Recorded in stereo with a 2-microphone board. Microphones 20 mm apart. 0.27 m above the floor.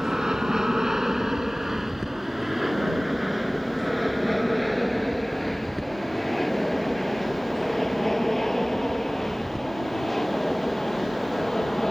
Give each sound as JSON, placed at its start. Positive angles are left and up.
{"t": 0.0, "sound": "an aircraft", "side_deg": -30}